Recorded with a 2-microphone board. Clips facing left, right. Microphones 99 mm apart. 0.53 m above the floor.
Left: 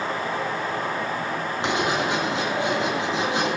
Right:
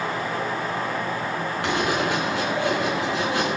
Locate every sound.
1.6 s writing: 25° left (ahead or behind), 3.5 m